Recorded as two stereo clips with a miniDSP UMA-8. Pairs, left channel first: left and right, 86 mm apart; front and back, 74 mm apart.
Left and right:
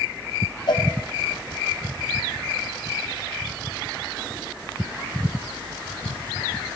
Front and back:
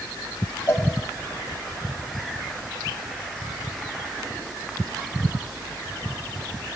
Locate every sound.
0.7 s a cowbell: 55° left, 0.8 m